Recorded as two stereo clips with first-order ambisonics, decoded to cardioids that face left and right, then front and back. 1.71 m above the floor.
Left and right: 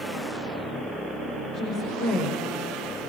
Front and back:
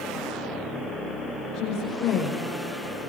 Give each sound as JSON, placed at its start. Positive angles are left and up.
{"t": 1.5, "sound": "a woman speaking", "azimuth_deg": 50, "distance_m": 6.5}